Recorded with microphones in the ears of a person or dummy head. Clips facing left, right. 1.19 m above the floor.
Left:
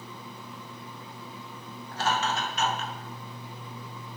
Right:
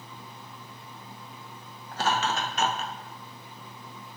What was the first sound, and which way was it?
Laughter, 60° right (ahead or behind).